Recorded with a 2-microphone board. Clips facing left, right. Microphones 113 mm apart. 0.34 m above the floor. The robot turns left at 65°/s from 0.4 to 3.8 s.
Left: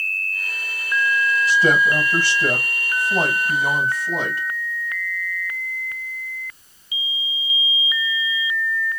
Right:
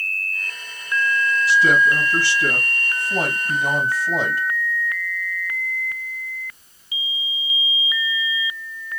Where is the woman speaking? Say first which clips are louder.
Right 1 dB; 125° left, 1.7 m; by 4.4 s 30° right, 1.7 m.